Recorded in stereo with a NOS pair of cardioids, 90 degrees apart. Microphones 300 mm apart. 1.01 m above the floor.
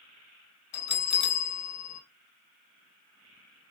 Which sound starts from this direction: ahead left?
A bell, at 0.7 s.